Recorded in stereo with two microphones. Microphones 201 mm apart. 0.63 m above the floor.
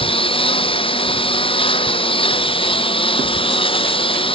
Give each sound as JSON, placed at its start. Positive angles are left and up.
{"t": 0.0, "sound": "a lawn mower", "side_deg": 25}